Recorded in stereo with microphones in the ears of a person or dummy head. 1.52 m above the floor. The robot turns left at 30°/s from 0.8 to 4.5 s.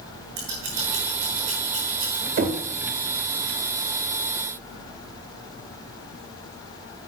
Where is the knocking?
45° right (ahead or behind), 1.6 m; by 2.6 s 40° right (ahead or behind), 1.6 m.